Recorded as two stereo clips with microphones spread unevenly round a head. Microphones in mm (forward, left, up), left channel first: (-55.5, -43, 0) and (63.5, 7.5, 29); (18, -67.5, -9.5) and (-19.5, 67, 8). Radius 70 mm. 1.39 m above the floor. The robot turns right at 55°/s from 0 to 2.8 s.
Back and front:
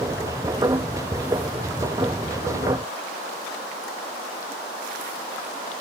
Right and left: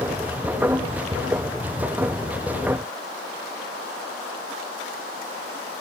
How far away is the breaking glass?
No breaking glass in this recording.